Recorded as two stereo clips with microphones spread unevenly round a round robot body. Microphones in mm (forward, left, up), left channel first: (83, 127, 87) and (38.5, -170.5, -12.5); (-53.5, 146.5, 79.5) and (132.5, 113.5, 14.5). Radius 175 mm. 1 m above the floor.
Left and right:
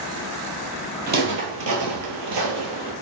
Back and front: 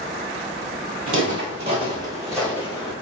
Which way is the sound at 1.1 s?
30° right.